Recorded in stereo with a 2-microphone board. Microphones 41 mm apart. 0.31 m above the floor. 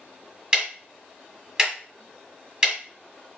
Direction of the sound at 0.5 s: 25° right (ahead or behind).